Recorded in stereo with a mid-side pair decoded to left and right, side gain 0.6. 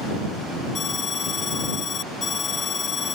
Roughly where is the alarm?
Ahead left.